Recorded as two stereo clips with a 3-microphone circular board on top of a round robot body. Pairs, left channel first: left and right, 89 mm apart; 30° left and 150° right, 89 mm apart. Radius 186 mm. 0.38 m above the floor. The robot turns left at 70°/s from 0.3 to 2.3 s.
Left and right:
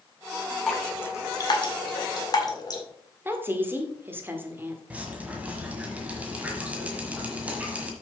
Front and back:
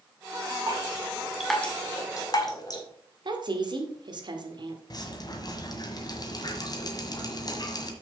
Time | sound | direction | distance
0.7 | dripping | 175° left | 2 m
3.2 | a woman speaking | 150° right | 2 m
4.9 | dripping | 15° right | 1.7 m